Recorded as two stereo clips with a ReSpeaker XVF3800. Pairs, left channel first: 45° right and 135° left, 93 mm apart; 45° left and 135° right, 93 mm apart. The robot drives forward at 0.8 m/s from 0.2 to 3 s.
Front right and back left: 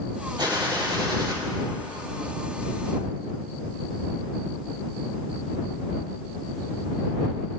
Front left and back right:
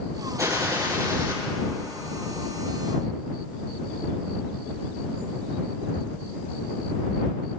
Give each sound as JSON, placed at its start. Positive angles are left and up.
{"t": 0.4, "sound": "a gunshot", "azimuth_deg": 170, "distance_m": 3.0}